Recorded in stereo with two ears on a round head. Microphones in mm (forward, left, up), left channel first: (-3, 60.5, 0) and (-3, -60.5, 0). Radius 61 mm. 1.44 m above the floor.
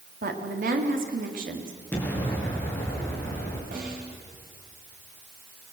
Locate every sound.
0.2 s a woman speaking: 70° right (ahead or behind), 3 m
1.9 s an explosion: 15° left (ahead or behind), 4.5 m
3.7 s a snare drum: 75° right (ahead or behind), 6 m